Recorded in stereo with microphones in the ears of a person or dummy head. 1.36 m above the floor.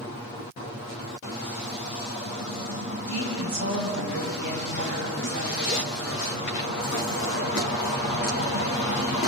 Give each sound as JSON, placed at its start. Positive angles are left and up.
{"t": 3.1, "sound": "a woman speaking", "side_deg": -75, "distance_m": 7.0}